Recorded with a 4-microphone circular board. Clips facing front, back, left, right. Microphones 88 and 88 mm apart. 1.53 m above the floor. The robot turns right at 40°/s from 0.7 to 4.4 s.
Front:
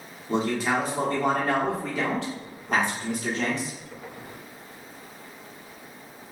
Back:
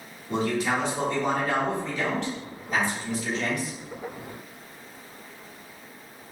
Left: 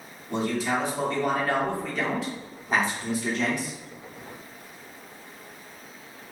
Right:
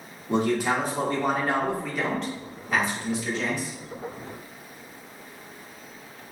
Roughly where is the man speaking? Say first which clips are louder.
Front 1 dB, right 3 dB; ahead right.